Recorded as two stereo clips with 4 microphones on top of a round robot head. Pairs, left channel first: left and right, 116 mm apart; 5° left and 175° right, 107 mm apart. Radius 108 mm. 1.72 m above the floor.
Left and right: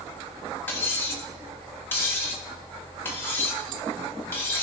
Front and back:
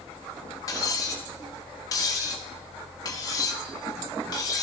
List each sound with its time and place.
0.7 s cutlery clinking: 30° left, 0.9 m